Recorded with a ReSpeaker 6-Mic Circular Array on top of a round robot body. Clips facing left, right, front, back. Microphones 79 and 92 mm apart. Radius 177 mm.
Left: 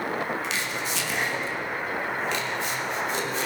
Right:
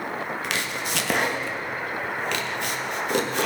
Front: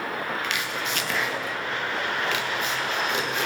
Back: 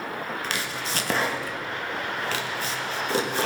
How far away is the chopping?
About 1.1 m.